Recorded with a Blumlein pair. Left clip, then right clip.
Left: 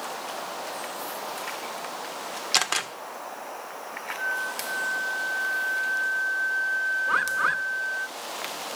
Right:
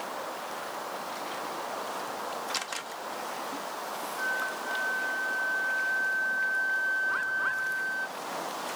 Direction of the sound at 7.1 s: 55° left.